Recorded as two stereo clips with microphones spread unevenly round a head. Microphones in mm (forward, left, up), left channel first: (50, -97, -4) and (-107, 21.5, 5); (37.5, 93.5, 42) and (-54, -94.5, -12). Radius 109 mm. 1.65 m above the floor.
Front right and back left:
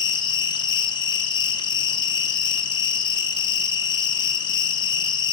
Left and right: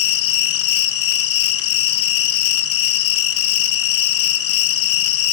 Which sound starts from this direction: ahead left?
An insect, at 0.0 s.